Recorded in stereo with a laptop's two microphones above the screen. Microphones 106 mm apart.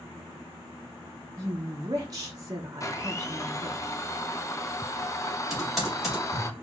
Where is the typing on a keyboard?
Centre (ahead or behind), 2 m.